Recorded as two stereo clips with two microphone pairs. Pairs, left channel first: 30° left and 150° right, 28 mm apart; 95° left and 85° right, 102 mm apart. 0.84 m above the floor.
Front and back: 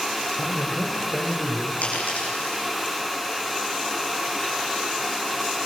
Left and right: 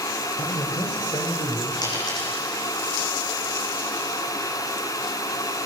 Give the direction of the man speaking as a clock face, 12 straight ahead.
10 o'clock.